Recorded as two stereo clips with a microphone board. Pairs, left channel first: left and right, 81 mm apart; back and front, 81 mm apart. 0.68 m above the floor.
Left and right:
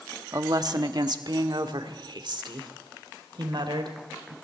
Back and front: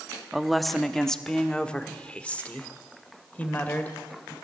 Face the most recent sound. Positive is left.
turn(degrees=-110)